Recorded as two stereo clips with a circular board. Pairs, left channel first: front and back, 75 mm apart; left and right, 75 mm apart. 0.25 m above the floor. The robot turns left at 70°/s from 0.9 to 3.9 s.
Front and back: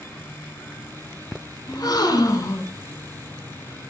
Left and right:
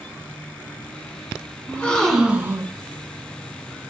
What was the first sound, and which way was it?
A gasp, 30° left.